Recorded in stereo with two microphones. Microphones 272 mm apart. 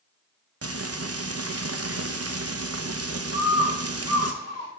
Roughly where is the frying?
Right.